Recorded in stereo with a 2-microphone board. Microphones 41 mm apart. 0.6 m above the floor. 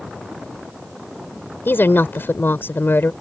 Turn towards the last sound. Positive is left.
turn(degrees=65)  # may be behind; listen again after turning